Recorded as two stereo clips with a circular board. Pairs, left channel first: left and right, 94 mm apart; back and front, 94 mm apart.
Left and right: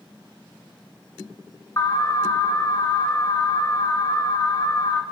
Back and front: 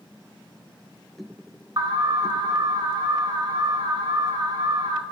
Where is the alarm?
40° left, 2.0 m.